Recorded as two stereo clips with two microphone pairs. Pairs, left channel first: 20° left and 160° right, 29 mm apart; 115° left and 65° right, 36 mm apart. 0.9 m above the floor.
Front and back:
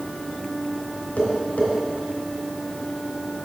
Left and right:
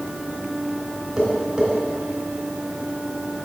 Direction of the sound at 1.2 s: 10° left.